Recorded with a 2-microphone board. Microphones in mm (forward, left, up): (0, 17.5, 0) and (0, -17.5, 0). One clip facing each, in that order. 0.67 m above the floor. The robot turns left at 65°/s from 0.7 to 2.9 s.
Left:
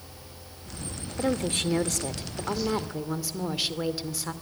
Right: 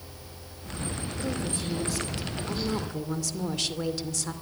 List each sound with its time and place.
1.2 s a woman speaking: 120° left, 2 m; by 4.3 s 10° left, 2 m